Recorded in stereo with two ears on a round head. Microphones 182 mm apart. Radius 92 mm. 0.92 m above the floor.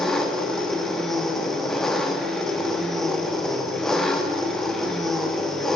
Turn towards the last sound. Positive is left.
turn(degrees=0)  # may be behind; listen again after turning